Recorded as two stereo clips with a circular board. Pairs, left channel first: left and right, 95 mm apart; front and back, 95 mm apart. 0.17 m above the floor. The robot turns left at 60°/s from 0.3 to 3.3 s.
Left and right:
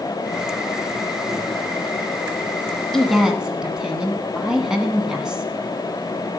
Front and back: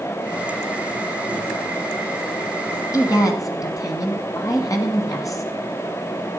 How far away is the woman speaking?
About 1.5 m.